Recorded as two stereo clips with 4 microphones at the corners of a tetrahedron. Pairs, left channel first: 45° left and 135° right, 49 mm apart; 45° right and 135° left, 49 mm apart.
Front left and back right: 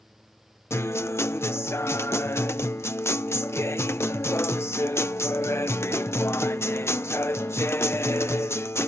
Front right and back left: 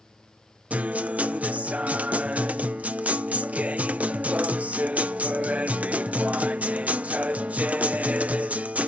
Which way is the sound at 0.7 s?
75° left.